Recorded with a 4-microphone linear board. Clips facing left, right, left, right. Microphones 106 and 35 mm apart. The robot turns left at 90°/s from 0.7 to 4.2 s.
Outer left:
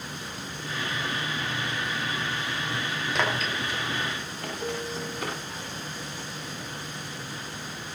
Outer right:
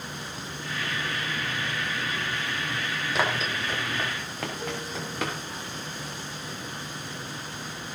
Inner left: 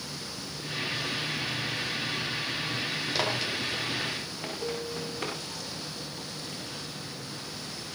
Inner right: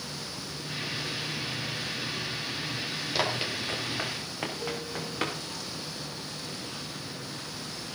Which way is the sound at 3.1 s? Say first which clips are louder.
Outer right 1 dB, inner right 2 dB; centre (ahead or behind).